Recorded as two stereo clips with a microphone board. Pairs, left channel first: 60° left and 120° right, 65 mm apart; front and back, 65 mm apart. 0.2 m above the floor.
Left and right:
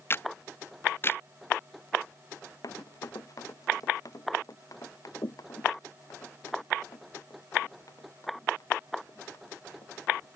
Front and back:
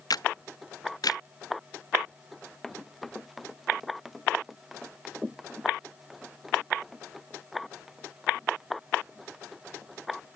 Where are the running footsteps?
85° left; by 10.3 s 95° left.